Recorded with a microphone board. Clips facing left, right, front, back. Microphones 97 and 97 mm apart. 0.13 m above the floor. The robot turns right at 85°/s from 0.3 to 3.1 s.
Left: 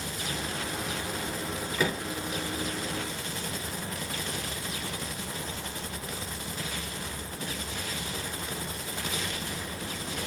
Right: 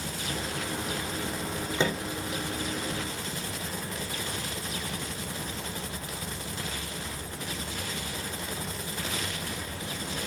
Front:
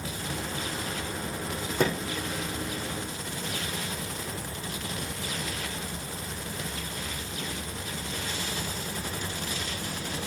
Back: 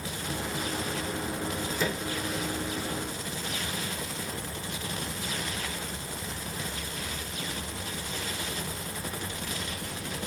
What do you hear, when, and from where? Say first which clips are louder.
1.8 s a microwave: right 1 dB, front 6 dB; 30° right, 5 m; by 2.0 s 5° right, 5 m